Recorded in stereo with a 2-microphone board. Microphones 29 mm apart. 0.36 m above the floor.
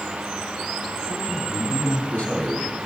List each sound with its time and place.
1.1 s a man speaking: 60° left (ahead or behind), 2.5 m